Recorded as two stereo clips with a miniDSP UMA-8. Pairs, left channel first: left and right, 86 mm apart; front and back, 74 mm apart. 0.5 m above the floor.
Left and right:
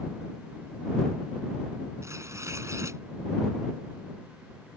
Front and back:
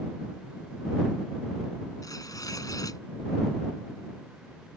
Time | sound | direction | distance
2.0 | tearing paper | 35° right | ?